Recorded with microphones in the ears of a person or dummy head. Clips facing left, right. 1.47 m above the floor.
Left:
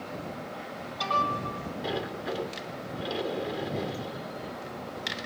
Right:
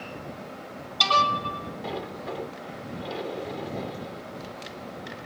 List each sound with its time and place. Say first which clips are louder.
1.8 s a sliding door: left 2 dB; 10° left (ahead or behind)